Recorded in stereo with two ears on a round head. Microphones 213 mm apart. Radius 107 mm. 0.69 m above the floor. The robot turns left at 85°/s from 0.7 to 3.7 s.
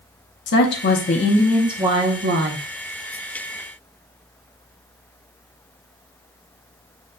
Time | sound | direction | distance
0.5 | a woman speaking | 80° left | 0.8 m